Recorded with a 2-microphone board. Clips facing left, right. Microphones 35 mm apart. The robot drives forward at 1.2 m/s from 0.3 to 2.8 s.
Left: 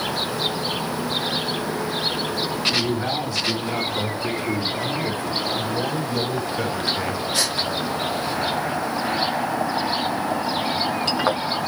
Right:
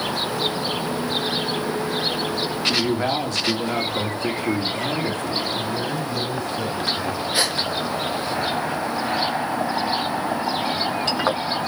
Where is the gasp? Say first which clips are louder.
Right 3 dB; 25° right (ahead or behind), 1.7 m.